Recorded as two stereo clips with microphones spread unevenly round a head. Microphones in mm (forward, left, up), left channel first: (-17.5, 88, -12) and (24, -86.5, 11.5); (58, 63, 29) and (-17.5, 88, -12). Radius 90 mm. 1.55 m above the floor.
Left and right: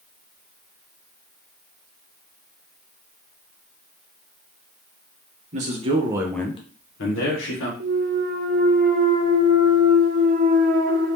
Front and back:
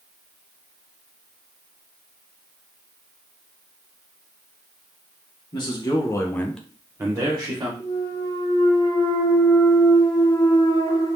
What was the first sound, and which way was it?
A man speaking, 30° right.